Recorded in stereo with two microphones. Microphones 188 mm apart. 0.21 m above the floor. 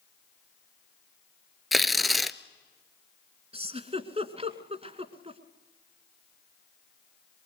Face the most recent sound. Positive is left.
turn(degrees=-35)  # may be behind; listen again after turning